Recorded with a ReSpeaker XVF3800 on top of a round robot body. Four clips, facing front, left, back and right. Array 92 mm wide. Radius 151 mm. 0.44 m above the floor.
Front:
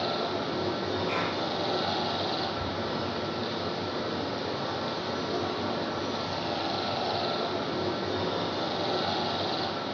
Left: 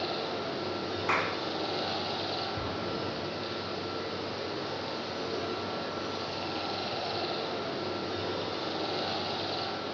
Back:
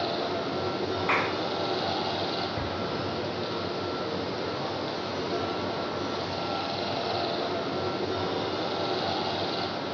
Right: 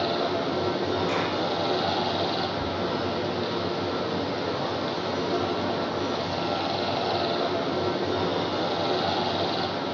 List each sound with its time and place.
0.0 s running water: 95° right, 5.5 m
1.1 s a clap: 155° left, 4.5 m
2.6 s an explosion: 165° left, 9.5 m